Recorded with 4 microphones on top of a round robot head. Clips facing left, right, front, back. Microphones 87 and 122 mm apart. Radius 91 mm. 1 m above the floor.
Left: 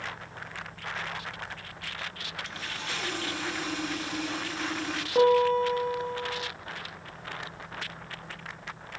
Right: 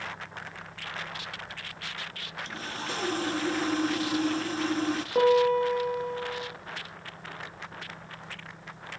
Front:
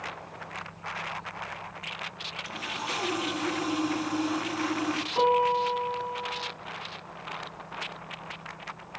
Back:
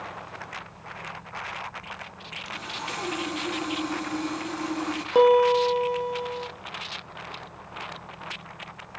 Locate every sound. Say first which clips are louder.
2.5 s sawing: right 4 dB, even; 80° right, 0.9 m
5.2 s a piano: left 1 dB, back 7 dB; 175° right, 1.3 m